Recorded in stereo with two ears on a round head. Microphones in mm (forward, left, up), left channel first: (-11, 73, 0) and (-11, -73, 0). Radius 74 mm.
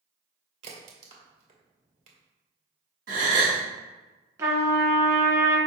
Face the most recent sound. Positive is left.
turn(degrees=-20)  # may be behind; listen again after turning